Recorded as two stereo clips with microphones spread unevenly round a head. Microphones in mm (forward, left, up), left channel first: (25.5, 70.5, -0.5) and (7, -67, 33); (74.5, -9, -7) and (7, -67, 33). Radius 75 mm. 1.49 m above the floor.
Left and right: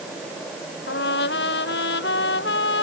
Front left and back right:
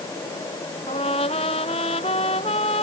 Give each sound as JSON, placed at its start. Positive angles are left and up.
{"t": 0.9, "sound": "a trumpet", "azimuth_deg": 95}